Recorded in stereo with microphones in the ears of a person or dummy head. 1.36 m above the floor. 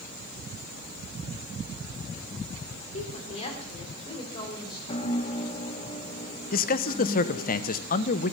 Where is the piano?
30° left (ahead or behind), 1.3 m.